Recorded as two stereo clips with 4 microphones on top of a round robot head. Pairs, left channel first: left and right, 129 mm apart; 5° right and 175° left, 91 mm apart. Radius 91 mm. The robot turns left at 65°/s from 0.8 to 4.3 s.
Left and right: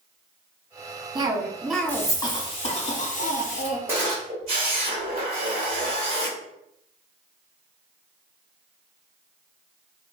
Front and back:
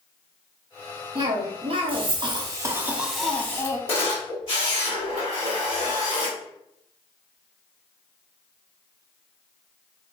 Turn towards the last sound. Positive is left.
turn(degrees=-40)